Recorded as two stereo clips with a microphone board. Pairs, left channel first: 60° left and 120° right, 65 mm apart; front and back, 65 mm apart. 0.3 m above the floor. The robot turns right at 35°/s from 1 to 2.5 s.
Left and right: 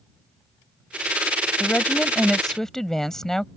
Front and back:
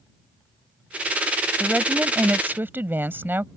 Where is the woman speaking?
110° left; by 3.5 s 140° left.